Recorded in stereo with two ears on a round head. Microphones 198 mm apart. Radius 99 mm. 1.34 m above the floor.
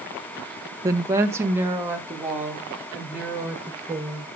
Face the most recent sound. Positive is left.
turn(degrees=-10)  # may be behind; listen again after turning